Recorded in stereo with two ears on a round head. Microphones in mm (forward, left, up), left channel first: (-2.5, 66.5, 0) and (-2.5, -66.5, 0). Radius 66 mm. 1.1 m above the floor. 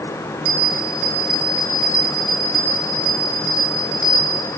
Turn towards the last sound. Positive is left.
turn(degrees=-40)  # may be behind; listen again after turning